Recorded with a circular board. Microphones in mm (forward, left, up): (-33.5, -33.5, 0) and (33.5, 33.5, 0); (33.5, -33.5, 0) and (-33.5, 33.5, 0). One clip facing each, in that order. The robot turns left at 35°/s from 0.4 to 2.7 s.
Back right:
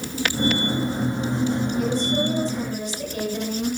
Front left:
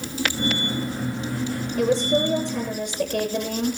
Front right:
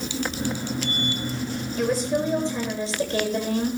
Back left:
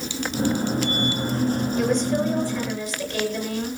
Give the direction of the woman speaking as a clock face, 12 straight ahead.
10 o'clock.